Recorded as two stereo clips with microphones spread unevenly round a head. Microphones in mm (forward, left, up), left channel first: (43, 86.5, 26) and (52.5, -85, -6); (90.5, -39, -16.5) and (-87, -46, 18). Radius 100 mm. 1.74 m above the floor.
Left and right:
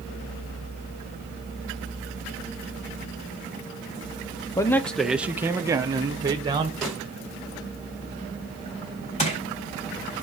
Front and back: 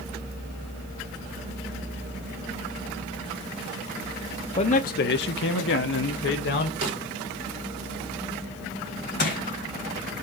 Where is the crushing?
55° left, 3.5 m.